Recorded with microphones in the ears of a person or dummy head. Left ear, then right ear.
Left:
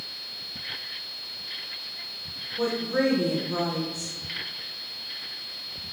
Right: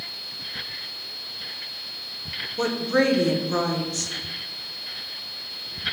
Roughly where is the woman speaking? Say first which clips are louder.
Right 3 dB; right.